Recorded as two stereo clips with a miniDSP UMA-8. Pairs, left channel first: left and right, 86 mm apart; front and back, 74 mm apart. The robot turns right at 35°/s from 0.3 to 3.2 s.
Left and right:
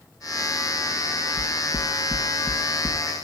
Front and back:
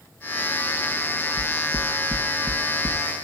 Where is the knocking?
125° left, 1.6 m; by 3.0 s straight behind, 1.6 m.